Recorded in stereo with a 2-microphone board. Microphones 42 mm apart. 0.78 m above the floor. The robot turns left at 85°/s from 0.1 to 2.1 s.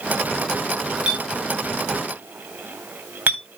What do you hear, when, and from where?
1.1 s a clink: 30° right (ahead or behind), 4 m; by 3.4 s 60° right (ahead or behind), 4 m